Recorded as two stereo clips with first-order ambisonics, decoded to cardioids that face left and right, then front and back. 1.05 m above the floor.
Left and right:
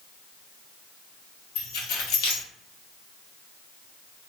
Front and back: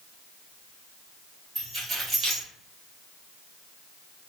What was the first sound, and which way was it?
Keys jangling, 110° left.